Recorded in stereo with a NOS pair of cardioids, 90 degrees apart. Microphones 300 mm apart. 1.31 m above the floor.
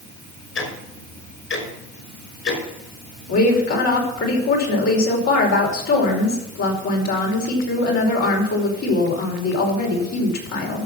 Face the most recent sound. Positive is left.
turn(degrees=55)